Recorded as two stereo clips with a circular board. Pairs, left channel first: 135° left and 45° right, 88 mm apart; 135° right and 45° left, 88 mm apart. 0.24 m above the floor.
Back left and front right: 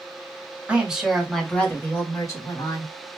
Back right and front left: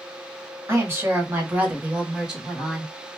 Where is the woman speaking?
15° left, 1.4 m; by 2.9 s 130° left, 1.8 m.